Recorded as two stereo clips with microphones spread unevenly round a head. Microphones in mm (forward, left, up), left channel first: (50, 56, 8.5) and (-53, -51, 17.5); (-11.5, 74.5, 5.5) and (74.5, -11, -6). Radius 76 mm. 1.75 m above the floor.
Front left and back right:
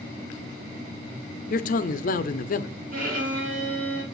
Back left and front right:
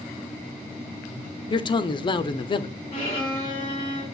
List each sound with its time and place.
1.5 s a man speaking: 85° left, 0.6 m
2.9 s a violin: 170° right, 2 m